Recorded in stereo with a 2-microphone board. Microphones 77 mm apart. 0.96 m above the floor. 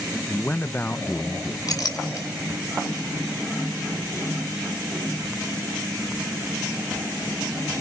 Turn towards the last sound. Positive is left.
turn(degrees=55)  # may be behind; listen again after turning